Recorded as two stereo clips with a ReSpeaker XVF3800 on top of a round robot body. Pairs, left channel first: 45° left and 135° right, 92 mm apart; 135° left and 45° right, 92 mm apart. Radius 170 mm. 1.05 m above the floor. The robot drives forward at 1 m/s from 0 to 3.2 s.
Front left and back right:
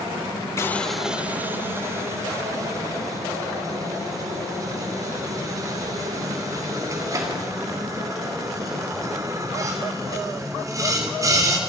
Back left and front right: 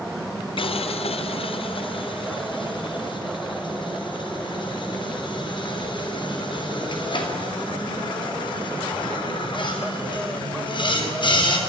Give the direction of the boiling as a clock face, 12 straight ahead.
8 o'clock.